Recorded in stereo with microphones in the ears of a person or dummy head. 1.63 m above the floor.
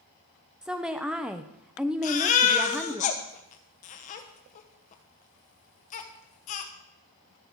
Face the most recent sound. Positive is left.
turn(degrees=40)  # may be behind; listen again after turning